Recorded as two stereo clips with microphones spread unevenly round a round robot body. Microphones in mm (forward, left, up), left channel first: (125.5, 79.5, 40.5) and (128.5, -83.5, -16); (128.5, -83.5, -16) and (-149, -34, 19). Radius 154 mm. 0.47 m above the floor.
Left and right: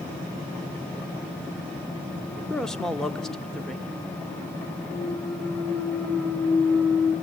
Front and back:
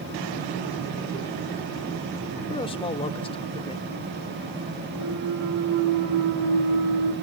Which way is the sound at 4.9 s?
175° right.